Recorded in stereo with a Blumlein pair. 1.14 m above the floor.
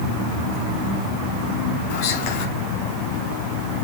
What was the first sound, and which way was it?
Whispering, 45° left.